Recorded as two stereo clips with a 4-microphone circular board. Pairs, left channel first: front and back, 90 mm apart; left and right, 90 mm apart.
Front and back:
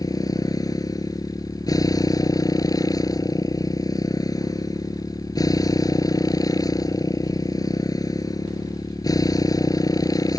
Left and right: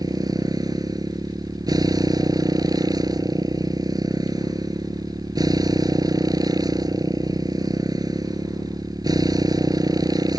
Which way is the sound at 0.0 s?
45° right.